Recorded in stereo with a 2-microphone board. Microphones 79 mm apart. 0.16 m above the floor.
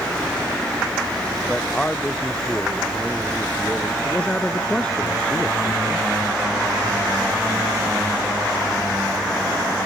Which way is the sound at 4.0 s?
15° left (ahead or behind).